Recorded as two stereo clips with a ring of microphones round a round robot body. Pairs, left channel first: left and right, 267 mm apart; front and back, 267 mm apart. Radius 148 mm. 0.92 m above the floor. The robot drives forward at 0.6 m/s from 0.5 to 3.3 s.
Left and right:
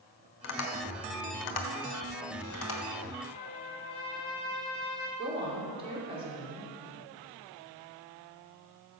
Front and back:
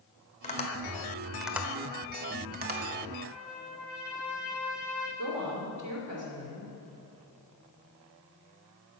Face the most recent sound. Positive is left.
turn(degrees=150)